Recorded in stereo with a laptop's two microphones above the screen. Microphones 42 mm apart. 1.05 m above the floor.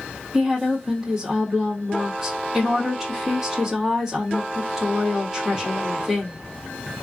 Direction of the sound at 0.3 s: 10° right (ahead or behind).